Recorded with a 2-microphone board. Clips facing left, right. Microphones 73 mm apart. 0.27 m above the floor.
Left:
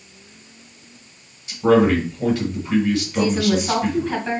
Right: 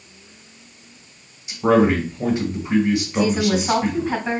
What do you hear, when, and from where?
1.5 s a man speaking: 20° right (ahead or behind), 1.8 m
3.1 s a woman speaking: 5° right (ahead or behind), 1.9 m